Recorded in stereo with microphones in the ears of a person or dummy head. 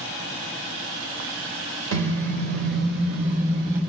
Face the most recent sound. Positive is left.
turn(degrees=-50)  # may be behind; listen again after turning